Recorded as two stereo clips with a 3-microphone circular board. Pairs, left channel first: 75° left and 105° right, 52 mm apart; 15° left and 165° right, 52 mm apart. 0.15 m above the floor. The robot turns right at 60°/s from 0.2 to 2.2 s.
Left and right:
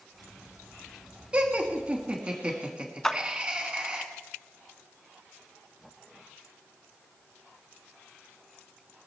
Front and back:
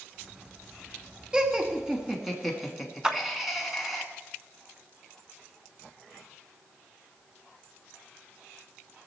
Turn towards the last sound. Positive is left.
turn(degrees=140)